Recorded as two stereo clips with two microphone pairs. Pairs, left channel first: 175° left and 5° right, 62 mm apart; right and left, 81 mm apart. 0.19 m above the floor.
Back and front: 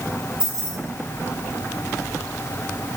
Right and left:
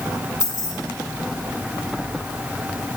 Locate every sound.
0.4 s keys jangling: 70° left, 3 m